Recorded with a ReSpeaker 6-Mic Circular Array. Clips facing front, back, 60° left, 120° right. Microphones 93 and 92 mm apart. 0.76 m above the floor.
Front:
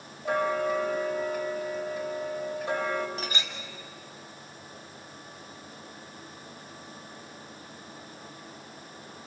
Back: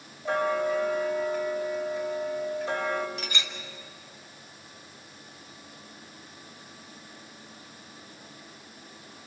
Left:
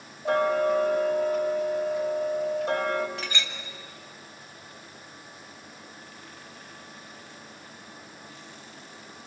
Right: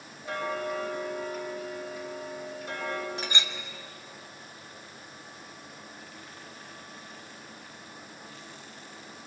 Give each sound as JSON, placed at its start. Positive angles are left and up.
{"t": 0.2, "sound": "ticking", "azimuth_deg": 75, "distance_m": 4.5}
{"t": 3.2, "sound": "a clink", "azimuth_deg": -50, "distance_m": 2.5}